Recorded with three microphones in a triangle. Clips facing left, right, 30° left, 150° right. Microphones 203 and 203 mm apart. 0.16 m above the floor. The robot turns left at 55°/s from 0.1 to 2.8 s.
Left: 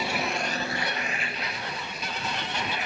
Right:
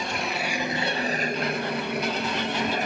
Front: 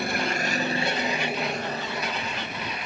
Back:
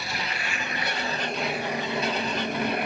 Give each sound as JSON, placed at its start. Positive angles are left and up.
{"t": 0.0, "sound": "an aircraft", "azimuth_deg": 10}